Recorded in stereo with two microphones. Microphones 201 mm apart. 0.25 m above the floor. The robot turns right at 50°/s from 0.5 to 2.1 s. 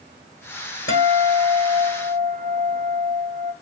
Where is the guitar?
85° left, 7.5 m; by 3.5 s 145° left, 7.5 m.